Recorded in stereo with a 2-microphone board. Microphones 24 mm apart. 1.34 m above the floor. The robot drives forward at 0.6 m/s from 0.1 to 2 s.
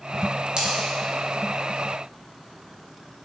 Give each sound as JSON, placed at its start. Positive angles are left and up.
{"t": 0.6, "sound": "a dropped coin", "side_deg": -35, "distance_m": 0.8}